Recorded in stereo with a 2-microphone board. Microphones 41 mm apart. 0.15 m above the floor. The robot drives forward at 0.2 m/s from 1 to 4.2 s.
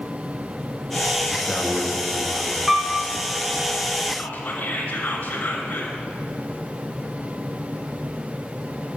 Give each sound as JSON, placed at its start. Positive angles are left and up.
{"t": 1.3, "sound": "a man speaking", "side_deg": 5, "distance_m": 1.6}
{"t": 2.7, "sound": "a piano", "side_deg": -5, "distance_m": 0.7}
{"t": 4.2, "sound": "whispering", "side_deg": 35, "distance_m": 1.4}